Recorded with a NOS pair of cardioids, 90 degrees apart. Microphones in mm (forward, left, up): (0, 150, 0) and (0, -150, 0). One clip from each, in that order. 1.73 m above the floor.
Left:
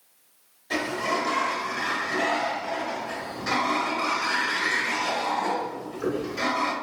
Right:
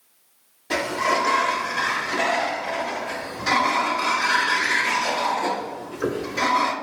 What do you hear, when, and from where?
0.7 s a sliding door: 30° right, 0.7 m